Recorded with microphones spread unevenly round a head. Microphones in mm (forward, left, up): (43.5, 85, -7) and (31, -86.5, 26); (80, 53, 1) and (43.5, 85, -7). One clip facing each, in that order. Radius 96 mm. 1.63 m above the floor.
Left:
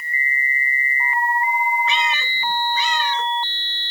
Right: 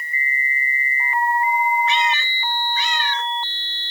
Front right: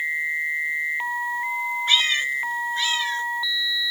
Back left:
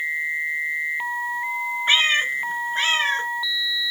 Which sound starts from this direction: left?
A cat meowing, at 1.9 s.